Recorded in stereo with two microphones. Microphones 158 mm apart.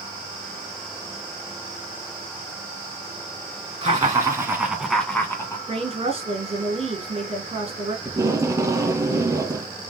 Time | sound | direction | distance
3.8 | laughter | 30° right (ahead or behind) | 1.8 m
5.7 | a woman speaking | 40° right (ahead or behind) | 2 m
8.1 | tape being pulled | 20° right (ahead or behind) | 0.9 m